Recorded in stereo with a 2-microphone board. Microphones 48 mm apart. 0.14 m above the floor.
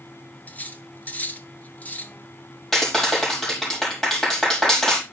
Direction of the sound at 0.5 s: 35° left (ahead or behind).